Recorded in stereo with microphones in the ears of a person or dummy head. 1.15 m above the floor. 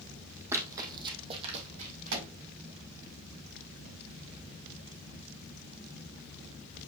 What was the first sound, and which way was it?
Running footsteps, 15° right (ahead or behind).